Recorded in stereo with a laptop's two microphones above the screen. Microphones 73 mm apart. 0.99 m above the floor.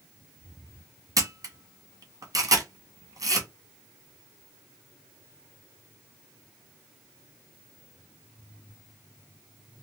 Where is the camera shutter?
50° right (ahead or behind), 1.0 m.